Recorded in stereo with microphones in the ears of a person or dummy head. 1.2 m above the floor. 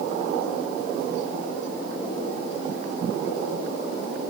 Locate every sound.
Only background noise.